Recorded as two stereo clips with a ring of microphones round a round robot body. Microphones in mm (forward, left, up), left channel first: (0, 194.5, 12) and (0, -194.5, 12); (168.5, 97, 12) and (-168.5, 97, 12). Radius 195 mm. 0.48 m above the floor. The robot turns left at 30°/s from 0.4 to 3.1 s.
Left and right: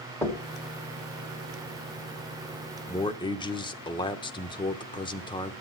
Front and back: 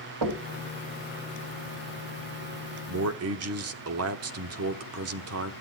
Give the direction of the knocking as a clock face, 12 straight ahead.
6 o'clock.